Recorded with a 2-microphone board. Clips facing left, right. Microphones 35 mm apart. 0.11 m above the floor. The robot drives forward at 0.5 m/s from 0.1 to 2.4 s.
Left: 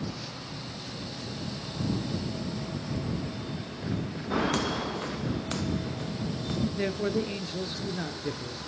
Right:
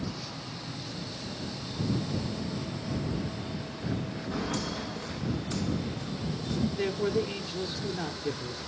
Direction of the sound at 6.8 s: 10° left (ahead or behind).